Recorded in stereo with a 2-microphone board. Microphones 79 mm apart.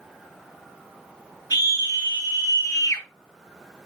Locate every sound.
1.5 s a scream: 70° left (ahead or behind), 5 m